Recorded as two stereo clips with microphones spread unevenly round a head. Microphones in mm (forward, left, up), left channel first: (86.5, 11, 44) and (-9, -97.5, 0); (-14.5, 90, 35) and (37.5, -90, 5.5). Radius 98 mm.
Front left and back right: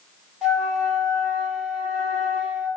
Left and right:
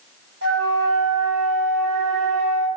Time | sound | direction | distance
0.4 | a flute | 40° right | 2 m